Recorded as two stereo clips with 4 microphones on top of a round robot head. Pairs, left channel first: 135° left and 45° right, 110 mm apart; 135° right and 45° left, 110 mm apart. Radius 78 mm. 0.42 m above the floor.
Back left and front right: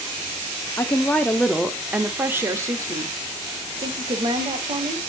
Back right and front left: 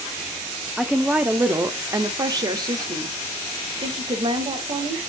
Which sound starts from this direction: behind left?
A woman speaking, at 0.8 s.